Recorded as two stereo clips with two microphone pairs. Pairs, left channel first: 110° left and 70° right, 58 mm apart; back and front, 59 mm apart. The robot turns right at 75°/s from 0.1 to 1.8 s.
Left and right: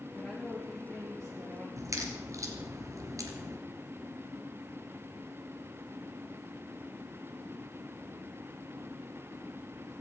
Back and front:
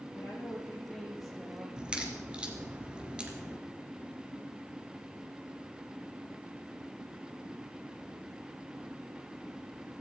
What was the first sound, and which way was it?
A woman speaking, 170° right.